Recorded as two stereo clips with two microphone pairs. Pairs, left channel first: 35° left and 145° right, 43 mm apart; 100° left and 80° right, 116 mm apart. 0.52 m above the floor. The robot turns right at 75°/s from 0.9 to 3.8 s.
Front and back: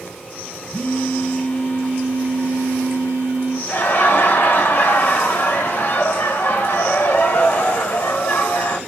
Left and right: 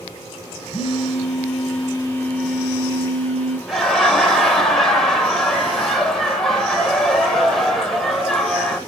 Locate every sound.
0.7 s a phone buzzing: 70° left, 1.2 m; by 3.6 s 85° right, 1.2 m
3.7 s laughter: 5° left, 2.5 m; by 8.8 s 15° left, 2.5 m